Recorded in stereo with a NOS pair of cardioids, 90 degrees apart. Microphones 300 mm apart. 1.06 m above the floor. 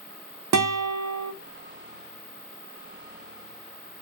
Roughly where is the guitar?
Ahead right.